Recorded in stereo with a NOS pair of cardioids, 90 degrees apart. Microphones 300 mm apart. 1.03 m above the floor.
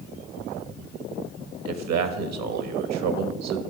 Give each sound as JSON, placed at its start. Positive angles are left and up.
{"t": 1.6, "sound": "a man speaking", "azimuth_deg": -70, "distance_m": 1.1}